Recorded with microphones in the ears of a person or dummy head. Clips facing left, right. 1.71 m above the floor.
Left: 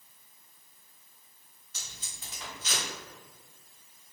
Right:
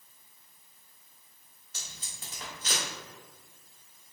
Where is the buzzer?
I don't hear a buzzer.